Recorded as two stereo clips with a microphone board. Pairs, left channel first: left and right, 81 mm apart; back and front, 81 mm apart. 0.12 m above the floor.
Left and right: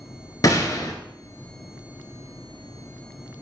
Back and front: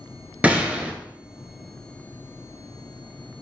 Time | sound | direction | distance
0.4 | a gunshot | 70° left | 0.7 m